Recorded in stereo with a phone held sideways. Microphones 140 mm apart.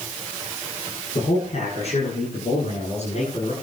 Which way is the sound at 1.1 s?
50° left (ahead or behind).